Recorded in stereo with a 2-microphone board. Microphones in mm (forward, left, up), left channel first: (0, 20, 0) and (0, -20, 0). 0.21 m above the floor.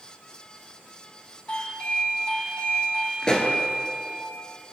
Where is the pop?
20° left (ahead or behind), 1.2 m.